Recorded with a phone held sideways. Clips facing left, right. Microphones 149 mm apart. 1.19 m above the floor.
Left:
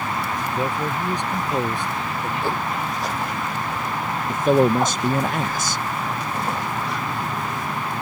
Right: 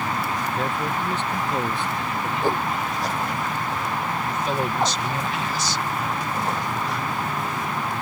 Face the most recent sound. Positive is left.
turn(degrees=50)  # may be behind; listen again after turning